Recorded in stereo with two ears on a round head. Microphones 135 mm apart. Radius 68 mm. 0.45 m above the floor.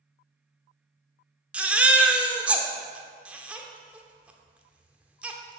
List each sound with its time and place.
1.5 s a baby crying: 10° right (ahead or behind), 0.7 m